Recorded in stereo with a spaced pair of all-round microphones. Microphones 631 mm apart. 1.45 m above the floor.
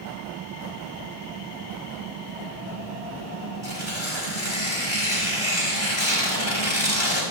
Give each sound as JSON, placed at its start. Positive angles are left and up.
{"t": 3.6, "sound": "tearing paper", "side_deg": 45, "distance_m": 4.5}